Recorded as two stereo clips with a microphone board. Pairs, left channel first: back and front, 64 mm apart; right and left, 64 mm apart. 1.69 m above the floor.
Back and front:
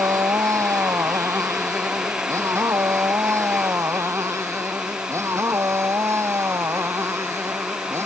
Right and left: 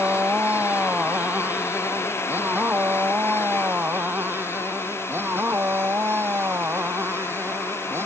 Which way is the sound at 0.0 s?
25° left.